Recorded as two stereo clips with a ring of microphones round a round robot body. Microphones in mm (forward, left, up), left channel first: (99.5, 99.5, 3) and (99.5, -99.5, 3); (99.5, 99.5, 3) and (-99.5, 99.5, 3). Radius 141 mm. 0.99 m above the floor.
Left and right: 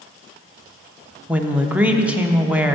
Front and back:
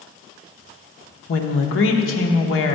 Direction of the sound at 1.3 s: 5° right.